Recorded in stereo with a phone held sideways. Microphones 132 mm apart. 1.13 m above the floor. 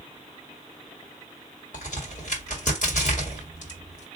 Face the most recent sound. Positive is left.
turn(degrees=60)  # may be behind; listen again after turning